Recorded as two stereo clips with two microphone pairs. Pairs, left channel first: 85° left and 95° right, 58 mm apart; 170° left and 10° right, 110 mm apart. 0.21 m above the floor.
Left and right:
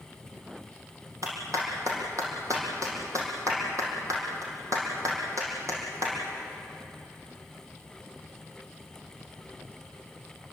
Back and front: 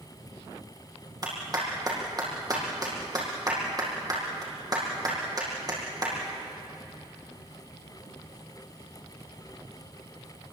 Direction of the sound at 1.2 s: 70° right.